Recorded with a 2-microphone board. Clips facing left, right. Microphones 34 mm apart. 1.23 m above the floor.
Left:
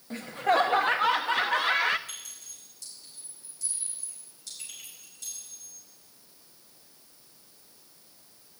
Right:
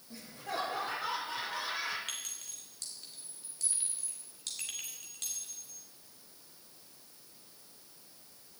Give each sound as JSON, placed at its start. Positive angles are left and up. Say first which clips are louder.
{"t": 0.1, "sound": "laughter", "louder": "left 14 dB", "side_deg": 60, "distance_m": 0.7}
{"t": 2.1, "sound": "a clink", "louder": "right 2 dB", "side_deg": -70, "distance_m": 3.0}